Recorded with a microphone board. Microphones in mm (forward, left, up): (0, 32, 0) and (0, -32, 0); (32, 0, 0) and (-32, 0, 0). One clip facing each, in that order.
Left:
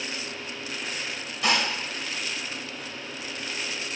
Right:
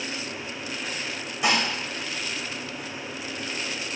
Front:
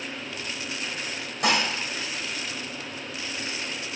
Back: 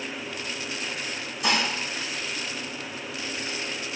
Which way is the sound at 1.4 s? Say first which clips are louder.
Right 1 dB, front 2 dB; 15° right.